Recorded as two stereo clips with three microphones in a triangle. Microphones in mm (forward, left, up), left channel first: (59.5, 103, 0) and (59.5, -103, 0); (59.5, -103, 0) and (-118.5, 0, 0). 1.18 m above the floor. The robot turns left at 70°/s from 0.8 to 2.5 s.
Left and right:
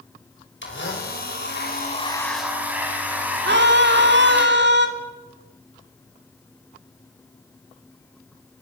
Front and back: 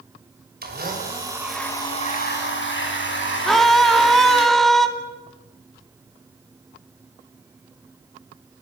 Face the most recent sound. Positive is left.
turn(degrees=-120)